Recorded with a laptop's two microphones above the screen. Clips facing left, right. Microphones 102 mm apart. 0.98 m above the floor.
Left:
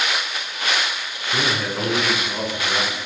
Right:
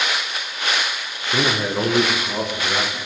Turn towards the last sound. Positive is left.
turn(degrees=-15)  # may be behind; listen again after turning